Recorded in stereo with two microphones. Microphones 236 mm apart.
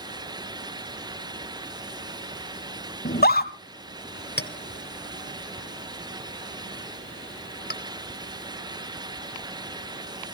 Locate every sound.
3.0 s a scream: 40° left (ahead or behind), 1.5 m
4.4 s a clink: 45° left (ahead or behind), 1.2 m